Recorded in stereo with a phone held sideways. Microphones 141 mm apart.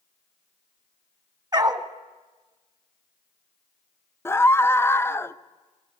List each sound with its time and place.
1.5 s a dog barking: 30° right (ahead or behind), 1.0 m
4.2 s a scream: 15° left (ahead or behind), 0.6 m